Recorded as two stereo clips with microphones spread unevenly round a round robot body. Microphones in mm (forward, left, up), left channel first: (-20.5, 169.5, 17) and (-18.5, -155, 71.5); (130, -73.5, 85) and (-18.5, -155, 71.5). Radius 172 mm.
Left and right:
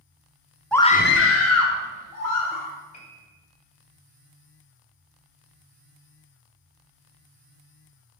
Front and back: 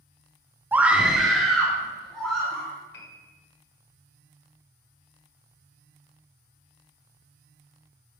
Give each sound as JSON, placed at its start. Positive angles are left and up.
{"t": 0.7, "sound": "a scream", "azimuth_deg": 155, "distance_m": 0.7}
{"t": 2.9, "sound": "a piano", "azimuth_deg": 25, "distance_m": 1.7}